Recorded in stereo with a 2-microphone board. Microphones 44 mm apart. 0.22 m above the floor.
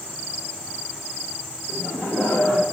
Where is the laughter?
70° left (ahead or behind), 4.5 m.